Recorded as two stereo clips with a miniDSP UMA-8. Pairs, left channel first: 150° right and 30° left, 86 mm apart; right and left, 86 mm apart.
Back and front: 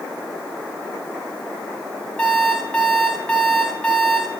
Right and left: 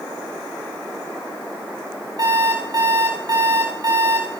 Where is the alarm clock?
135° left, 9 m.